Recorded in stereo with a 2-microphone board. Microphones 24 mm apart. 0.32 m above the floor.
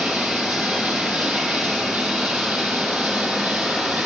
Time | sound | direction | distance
0.0 | running water | 85° right | 5 m